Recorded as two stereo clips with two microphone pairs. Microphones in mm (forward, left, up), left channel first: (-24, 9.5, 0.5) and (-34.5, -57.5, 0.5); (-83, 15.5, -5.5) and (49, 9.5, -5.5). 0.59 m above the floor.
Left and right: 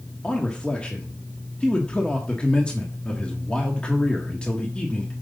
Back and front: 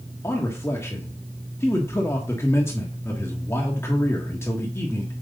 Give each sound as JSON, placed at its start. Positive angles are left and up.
{"t": 0.2, "sound": "a man speaking", "azimuth_deg": 140, "distance_m": 1.3}